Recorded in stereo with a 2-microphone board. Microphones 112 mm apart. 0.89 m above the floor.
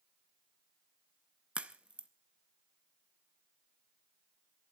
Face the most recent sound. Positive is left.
turn(degrees=-10)  # may be behind; listen again after turning